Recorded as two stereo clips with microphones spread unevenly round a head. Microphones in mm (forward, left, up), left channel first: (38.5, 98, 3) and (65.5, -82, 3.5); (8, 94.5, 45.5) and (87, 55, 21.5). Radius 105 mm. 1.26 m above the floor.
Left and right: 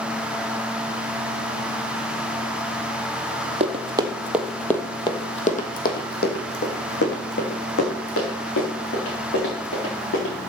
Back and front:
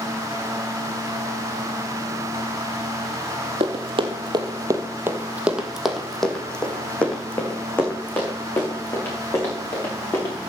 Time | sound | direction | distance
3.6 | running footsteps | 35° right | 1.9 m